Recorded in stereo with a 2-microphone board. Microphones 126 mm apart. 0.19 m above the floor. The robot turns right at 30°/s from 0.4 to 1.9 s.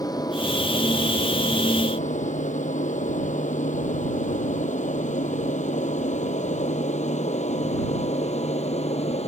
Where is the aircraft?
30° left (ahead or behind); by 9.3 s 55° left (ahead or behind).